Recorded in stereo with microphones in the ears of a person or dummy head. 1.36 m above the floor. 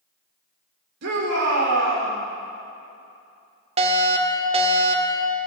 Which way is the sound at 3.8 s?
35° right (ahead or behind).